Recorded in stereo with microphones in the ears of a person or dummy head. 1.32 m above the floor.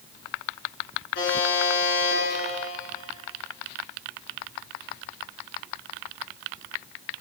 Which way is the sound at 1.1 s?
65° left (ahead or behind).